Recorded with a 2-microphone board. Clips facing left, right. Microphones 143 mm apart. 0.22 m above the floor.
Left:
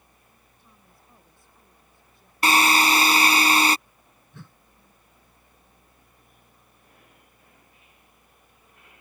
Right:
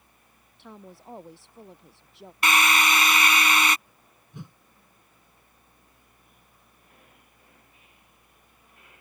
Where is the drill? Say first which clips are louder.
Left 3 dB; 35° left (ahead or behind).